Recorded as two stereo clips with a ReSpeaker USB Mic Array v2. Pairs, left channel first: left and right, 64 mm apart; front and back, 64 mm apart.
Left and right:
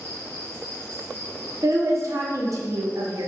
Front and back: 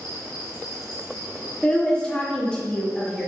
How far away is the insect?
About 1.9 m.